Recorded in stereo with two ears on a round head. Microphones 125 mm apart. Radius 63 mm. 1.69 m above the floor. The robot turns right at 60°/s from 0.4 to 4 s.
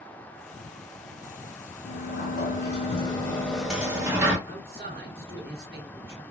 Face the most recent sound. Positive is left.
turn(degrees=-85)